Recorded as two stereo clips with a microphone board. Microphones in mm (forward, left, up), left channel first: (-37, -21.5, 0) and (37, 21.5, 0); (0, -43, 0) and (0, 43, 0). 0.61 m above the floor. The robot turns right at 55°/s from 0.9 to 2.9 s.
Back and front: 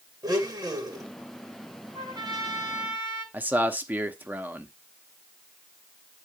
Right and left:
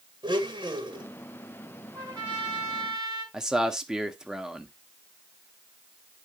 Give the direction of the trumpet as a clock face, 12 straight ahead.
10 o'clock.